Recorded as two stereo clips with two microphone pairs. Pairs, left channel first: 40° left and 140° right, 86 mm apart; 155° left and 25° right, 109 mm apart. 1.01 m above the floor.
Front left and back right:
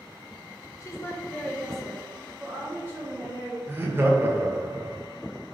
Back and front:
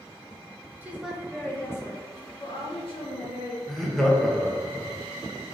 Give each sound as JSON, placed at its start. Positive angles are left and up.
{"t": 0.8, "sound": "a woman speaking", "azimuth_deg": 35, "distance_m": 0.8}
{"t": 3.7, "sound": "laughter", "azimuth_deg": -120, "distance_m": 0.8}